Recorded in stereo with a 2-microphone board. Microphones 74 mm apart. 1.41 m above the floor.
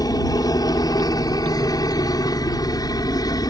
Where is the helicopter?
60° left (ahead or behind).